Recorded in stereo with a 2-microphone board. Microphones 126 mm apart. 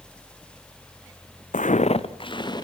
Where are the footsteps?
85° left, 0.6 m; by 2.6 s 35° left (ahead or behind), 1.9 m.